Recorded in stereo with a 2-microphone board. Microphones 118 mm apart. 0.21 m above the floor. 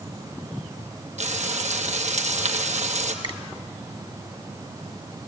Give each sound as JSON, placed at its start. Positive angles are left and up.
{"t": 1.2, "sound": "frying", "side_deg": -75, "distance_m": 2.0}
{"t": 3.2, "sound": "a finger snap", "side_deg": -40, "distance_m": 1.4}